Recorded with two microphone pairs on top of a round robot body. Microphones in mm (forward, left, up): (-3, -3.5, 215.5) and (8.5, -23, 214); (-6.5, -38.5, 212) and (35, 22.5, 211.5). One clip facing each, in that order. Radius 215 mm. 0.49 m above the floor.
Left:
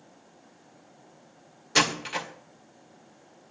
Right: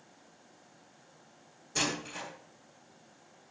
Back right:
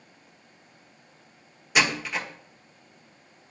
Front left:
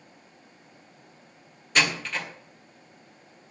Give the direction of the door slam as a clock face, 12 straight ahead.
7 o'clock.